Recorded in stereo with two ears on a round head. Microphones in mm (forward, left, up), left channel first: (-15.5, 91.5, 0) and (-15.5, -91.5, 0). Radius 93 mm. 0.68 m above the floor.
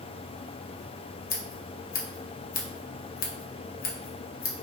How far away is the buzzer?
No buzzer in this recording.